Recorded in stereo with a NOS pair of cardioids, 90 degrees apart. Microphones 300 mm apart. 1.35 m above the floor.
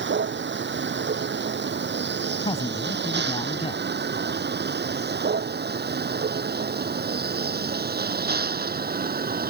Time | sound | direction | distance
0.0 | a vehicle | 35° right | ?
2.4 | a man speaking | 20° left | ?